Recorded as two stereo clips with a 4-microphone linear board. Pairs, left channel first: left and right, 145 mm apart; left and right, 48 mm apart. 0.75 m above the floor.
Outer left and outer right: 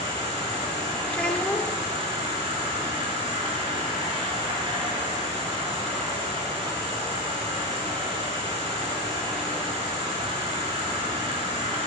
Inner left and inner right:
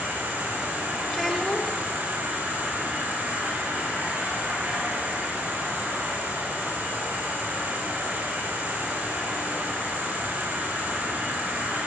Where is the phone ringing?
No phone ringing in this recording.